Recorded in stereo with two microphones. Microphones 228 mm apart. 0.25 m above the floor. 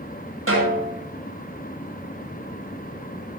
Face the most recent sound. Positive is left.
turn(degrees=-80)